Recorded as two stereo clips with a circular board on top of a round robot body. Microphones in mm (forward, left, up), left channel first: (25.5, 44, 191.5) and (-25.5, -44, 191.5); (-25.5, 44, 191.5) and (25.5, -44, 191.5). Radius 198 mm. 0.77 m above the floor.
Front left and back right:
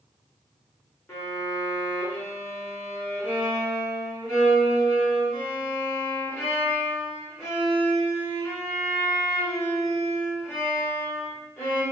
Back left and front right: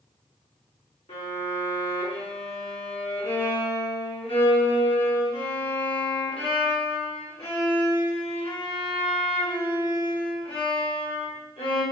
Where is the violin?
125° left, 1.9 m.